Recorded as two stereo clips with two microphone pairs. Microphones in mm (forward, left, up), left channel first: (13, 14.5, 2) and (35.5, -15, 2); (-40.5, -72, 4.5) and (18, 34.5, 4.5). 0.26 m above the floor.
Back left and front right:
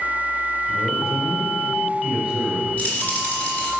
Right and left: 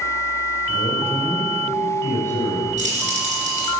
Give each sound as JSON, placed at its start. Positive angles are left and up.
{"t": 0.7, "sound": "a man speaking", "azimuth_deg": -125, "distance_m": 4.0}
{"t": 2.8, "sound": "keys jangling", "azimuth_deg": 75, "distance_m": 3.5}